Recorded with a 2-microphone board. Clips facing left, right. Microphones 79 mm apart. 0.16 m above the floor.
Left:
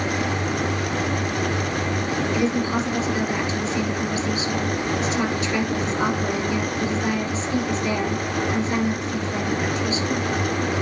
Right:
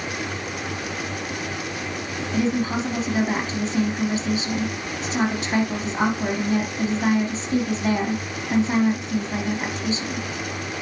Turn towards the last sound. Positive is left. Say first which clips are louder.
# right 2 dB
turn(degrees=-35)  # may be behind; listen again after turning